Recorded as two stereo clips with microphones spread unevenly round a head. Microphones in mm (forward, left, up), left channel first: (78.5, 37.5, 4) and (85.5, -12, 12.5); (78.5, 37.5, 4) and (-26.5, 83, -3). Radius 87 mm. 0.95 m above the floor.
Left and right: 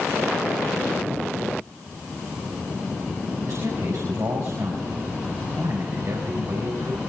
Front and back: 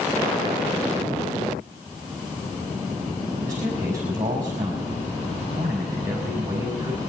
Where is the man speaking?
130° right, 5 m.